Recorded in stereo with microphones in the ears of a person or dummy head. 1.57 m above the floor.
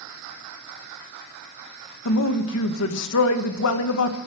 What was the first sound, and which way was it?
A man speaking, 75° left (ahead or behind).